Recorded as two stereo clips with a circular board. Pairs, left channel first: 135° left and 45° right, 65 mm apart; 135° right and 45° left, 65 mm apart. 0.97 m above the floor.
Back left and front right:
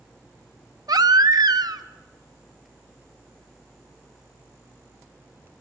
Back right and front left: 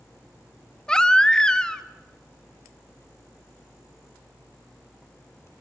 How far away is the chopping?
No chopping in this recording.